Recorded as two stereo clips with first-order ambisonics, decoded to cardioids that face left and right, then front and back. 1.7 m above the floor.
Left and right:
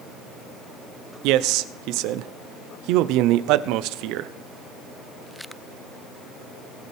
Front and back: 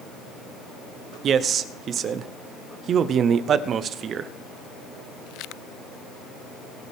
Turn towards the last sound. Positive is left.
turn(degrees=-120)